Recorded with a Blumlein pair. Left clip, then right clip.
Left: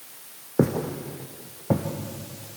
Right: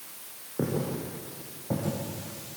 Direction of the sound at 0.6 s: 30° left.